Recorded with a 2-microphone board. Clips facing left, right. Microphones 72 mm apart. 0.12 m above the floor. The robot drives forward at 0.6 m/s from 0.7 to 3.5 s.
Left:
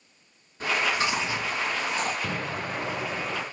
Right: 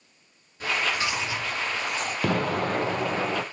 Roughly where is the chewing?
Left.